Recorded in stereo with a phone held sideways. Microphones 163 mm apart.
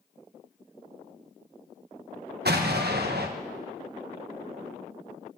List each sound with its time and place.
2.5 s an explosion: 80° right, 1.1 m